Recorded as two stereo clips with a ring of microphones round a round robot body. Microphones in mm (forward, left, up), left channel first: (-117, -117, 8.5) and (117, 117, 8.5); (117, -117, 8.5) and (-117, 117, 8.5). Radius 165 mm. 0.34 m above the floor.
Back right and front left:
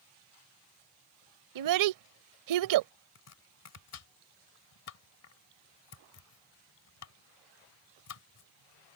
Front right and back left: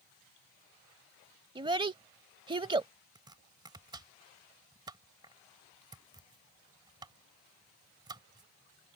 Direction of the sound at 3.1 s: 150° right.